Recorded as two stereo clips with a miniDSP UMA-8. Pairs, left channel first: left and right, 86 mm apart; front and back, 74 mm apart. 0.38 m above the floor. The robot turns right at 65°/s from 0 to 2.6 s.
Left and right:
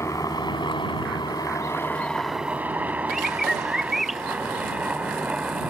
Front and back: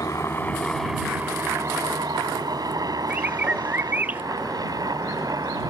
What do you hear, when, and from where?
0.0 s a helicopter: 35° left; by 5.7 s 165° right
3.1 s a bird: 175° right